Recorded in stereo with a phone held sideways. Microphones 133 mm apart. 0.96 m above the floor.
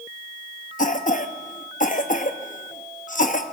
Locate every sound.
0.8 s a cough: 65° left (ahead or behind), 0.9 m